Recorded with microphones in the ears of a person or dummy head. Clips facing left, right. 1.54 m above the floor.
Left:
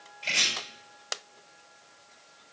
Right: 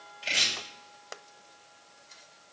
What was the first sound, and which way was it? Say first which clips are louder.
Chopping: even; 10° right (ahead or behind).